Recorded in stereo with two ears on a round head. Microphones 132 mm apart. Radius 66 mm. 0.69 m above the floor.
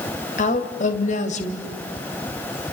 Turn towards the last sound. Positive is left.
turn(degrees=55)  # may be behind; listen again after turning